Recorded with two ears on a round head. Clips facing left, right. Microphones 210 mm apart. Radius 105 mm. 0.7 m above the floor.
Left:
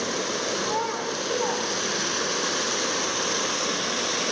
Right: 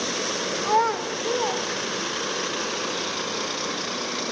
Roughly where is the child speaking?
Right.